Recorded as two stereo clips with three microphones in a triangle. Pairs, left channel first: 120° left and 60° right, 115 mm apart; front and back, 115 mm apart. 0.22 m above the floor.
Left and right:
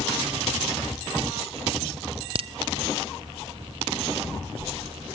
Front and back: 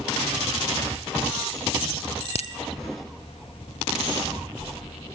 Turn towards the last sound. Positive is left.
turn(degrees=-25)